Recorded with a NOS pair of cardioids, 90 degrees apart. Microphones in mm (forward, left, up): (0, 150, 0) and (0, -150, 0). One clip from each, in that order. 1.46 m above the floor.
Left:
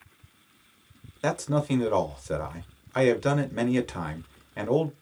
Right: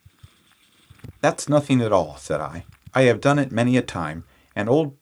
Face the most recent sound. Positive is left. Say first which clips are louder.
# right 8 dB
turn(degrees=-40)